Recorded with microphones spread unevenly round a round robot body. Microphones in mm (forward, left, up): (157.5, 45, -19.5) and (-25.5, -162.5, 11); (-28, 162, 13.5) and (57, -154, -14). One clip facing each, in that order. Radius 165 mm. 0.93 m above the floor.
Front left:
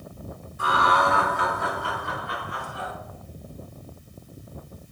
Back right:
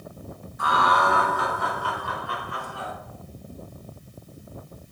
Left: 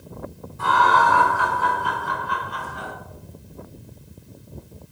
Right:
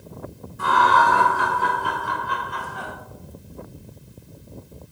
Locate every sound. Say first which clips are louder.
0.6 s laughter: even, even; 5° right, 3.5 m; by 2.9 s 20° right, 5 m